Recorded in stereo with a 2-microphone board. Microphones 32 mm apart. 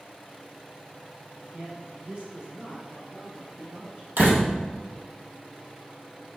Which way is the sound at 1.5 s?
45° right (ahead or behind).